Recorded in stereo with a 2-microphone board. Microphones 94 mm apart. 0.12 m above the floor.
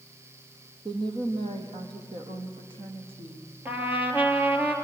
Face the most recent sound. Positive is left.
turn(degrees=-20)  # may be behind; listen again after turning